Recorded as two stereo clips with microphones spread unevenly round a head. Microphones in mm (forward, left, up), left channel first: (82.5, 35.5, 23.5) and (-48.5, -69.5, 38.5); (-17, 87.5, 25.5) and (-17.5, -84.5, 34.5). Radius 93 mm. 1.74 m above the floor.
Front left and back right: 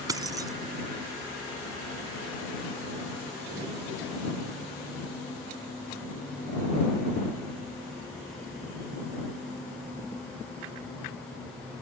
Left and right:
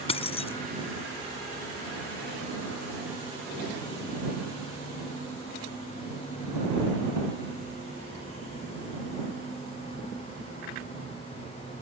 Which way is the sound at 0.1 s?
150° left.